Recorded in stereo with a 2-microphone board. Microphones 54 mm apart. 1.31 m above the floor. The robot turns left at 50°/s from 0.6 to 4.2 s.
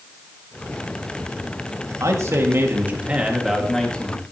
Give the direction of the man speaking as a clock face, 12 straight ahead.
3 o'clock.